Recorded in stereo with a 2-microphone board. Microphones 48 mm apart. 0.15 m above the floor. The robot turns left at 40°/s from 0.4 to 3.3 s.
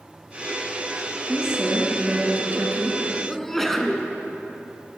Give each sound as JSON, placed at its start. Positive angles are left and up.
{"t": 1.3, "sound": "a woman speaking", "azimuth_deg": -15, "distance_m": 2.0}
{"t": 3.3, "sound": "a sneeze", "side_deg": 10, "distance_m": 1.2}